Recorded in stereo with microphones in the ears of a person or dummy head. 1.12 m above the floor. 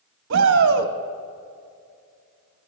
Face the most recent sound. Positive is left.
turn(degrees=-65)  # may be behind; listen again after turning